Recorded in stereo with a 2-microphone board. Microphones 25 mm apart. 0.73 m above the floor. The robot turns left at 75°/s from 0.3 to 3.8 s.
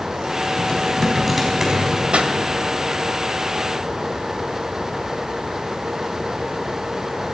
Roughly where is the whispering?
I don't hear whispering.